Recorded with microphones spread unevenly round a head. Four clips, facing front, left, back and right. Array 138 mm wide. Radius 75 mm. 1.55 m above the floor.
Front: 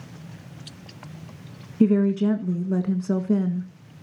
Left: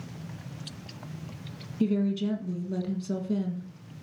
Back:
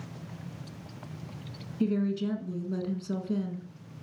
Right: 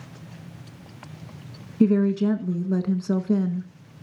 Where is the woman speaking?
40° right, 1.6 m.